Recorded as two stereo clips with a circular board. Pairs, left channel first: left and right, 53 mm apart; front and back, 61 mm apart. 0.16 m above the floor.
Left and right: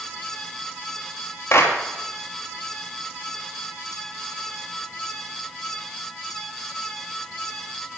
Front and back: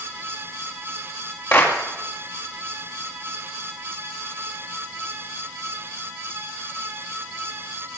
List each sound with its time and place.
1.5 s a clap: 50° left, 3 m